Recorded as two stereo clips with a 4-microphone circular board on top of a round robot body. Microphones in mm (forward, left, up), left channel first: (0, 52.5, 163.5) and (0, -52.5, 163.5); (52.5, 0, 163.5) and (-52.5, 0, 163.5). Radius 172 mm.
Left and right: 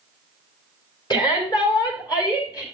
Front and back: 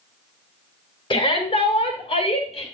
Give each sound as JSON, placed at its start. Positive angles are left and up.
{"t": 1.1, "sound": "a shout", "azimuth_deg": 45, "distance_m": 4.5}